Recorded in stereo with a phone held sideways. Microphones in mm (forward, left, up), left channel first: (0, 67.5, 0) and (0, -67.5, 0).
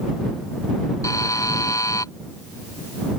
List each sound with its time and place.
1.0 s a buzzer: 25° left (ahead or behind)